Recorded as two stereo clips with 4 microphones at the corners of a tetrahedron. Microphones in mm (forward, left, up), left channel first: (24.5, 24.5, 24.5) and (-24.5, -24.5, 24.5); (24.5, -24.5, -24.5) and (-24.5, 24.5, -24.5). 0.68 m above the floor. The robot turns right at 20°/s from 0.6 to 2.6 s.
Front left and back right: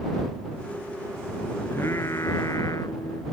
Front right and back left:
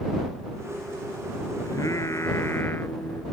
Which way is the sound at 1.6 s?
10° right.